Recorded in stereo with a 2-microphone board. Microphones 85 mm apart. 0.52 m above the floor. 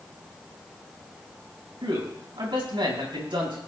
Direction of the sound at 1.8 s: 75° right (ahead or behind).